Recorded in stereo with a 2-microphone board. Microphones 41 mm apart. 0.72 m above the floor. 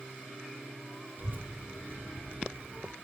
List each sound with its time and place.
1.2 s a child speaking: 50° right (ahead or behind), 1.5 m